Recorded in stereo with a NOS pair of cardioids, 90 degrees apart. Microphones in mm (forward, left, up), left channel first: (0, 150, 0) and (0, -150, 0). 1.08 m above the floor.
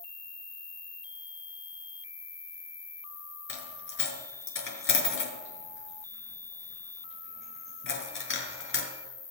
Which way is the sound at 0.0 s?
30° left.